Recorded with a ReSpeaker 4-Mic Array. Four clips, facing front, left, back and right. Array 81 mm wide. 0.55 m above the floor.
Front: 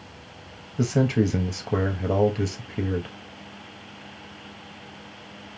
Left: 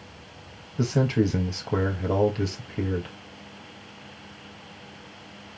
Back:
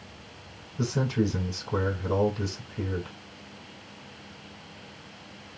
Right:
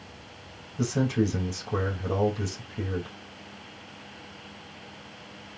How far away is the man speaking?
About 2.5 m.